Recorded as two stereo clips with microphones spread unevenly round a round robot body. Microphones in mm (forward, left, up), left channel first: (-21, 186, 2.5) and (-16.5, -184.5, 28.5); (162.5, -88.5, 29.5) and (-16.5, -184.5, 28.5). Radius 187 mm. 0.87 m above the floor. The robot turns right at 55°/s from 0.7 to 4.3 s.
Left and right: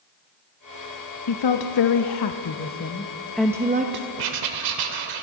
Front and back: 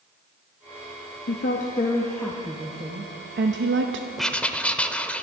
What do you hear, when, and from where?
1.3 s a woman speaking: 60° left, 0.7 m; by 4.1 s 145° right, 0.7 m
4.2 s writing: 65° right, 1.2 m; by 5.2 s 55° right, 1.2 m